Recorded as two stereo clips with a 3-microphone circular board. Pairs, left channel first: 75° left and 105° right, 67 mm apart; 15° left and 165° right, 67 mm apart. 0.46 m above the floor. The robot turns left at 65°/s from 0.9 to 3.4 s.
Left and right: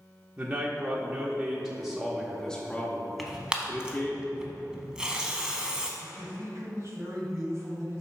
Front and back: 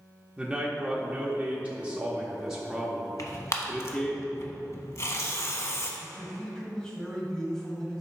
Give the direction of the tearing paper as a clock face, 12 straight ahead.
12 o'clock.